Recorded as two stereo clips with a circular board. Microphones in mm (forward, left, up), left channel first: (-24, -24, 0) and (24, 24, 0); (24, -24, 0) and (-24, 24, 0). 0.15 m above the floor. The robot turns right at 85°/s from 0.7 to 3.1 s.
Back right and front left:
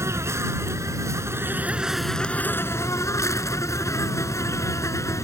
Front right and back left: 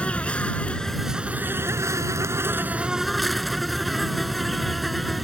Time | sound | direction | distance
0.0 | an insect | 25° left | ?